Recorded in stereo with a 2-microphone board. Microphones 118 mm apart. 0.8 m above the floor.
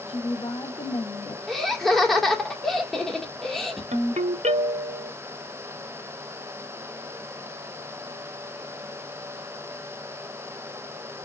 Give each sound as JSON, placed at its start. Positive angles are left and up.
{"t": 0.1, "sound": "a woman speaking", "side_deg": 45, "distance_m": 1.6}
{"t": 1.5, "sound": "laughter", "side_deg": 0, "distance_m": 1.6}
{"t": 3.9, "sound": "a ringtone", "side_deg": -80, "distance_m": 0.9}